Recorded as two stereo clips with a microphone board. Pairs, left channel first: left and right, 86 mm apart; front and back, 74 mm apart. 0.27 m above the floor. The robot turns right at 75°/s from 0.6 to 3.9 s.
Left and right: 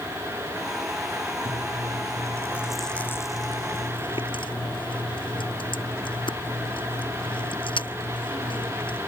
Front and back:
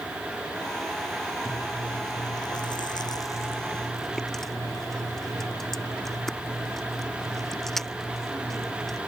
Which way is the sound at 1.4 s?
100° right.